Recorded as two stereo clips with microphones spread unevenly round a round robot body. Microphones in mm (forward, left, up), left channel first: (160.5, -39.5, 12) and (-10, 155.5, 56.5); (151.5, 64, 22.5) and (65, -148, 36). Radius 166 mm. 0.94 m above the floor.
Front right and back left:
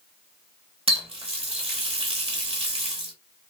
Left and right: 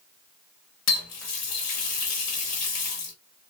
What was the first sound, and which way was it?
A running tap, 60° left.